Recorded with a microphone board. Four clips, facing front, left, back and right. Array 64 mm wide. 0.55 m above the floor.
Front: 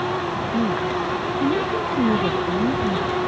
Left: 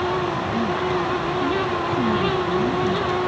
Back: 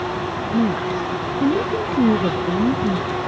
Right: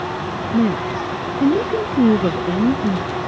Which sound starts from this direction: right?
A woman speaking, at 0.5 s.